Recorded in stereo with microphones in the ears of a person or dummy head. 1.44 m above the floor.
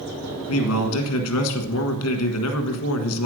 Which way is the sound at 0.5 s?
85° left.